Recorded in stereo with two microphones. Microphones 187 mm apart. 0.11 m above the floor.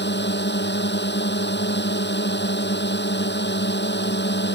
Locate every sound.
0.0 s a drone: 65° left (ahead or behind)